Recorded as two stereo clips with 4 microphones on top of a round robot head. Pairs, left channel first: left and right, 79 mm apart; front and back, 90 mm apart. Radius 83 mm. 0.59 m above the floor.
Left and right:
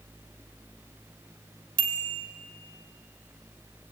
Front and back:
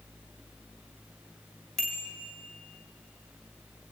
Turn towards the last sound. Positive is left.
turn(degrees=-85)